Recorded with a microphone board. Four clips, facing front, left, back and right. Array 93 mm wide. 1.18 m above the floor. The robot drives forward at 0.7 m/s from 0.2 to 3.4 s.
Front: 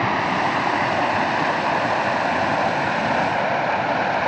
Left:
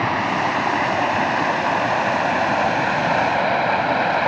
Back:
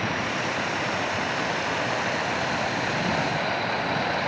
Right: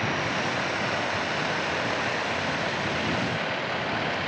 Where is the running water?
45° left; by 4.3 s 60° left.